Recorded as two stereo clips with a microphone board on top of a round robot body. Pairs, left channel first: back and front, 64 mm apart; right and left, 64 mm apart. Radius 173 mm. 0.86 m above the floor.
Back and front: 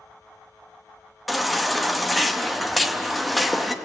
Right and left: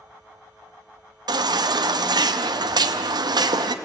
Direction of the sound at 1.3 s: 90° left.